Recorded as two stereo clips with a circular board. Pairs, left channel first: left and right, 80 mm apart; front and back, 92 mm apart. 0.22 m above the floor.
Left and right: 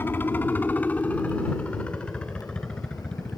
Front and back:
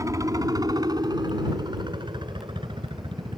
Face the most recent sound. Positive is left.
turn(degrees=170)